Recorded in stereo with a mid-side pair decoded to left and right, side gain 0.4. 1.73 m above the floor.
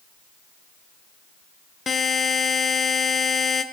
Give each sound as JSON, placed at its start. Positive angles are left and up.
{"t": 1.9, "sound": "a buzzer", "azimuth_deg": 45, "distance_m": 1.2}